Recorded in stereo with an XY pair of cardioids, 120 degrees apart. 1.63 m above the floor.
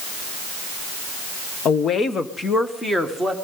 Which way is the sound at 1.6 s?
55° left.